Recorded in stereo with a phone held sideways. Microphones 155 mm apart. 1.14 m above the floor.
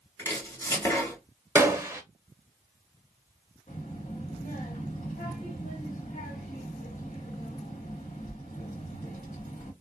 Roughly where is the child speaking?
Left.